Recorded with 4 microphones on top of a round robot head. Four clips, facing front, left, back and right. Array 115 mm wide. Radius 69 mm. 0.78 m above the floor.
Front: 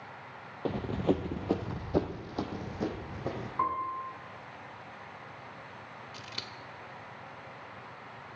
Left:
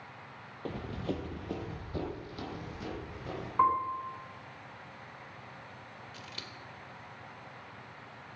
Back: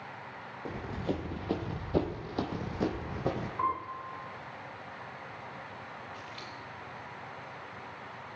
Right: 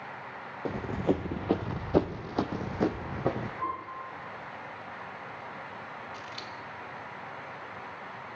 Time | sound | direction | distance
0.7 | running footsteps | 30° right | 0.9 m
3.6 | a piano | 75° left | 4 m
6.1 | scissors | 10° left | 1.5 m